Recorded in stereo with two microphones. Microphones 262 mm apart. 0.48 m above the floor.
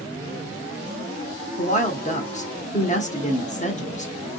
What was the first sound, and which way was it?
A woman speaking, 30° left (ahead or behind).